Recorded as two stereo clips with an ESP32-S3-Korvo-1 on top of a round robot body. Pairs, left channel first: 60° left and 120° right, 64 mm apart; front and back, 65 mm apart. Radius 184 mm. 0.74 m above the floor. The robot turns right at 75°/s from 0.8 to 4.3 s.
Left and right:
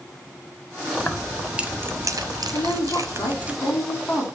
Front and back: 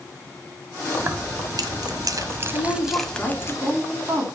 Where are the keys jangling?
125° left, 1.0 m; by 3.5 s 45° right, 1.0 m.